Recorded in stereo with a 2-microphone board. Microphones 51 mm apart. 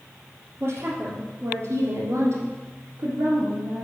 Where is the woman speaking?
50° right (ahead or behind), 3.5 m; by 3.9 s 60° right (ahead or behind), 2.5 m.